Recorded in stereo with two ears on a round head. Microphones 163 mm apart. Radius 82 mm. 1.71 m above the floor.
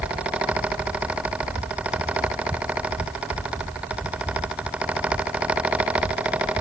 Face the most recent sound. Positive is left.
No sound to turn to.